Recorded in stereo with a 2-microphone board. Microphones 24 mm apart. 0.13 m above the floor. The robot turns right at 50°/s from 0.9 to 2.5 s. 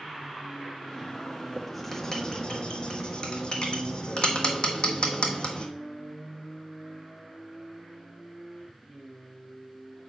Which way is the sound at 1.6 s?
5° right (ahead or behind).